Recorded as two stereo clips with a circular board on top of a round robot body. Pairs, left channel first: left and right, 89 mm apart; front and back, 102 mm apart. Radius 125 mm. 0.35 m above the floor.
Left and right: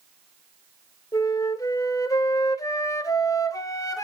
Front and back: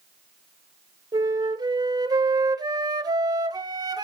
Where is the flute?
135° left, 1.5 m.